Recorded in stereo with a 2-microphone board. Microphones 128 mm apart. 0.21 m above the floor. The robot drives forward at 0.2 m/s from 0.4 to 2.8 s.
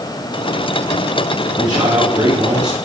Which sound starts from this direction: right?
A man speaking, at 1.6 s.